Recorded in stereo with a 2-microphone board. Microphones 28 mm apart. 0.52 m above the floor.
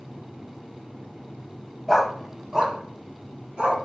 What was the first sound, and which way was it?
A dog barking, centre (ahead or behind).